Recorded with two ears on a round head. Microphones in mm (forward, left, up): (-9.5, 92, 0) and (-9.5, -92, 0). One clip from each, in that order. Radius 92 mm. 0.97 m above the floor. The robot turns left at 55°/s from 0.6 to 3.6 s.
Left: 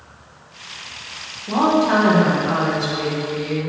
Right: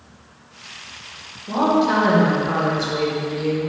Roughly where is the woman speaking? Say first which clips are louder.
Left 1 dB; ahead left.